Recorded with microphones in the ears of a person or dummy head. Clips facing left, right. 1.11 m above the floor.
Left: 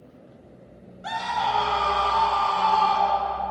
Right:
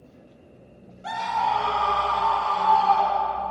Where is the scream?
5° right (ahead or behind), 1.8 m; by 3.5 s 35° left (ahead or behind), 4 m.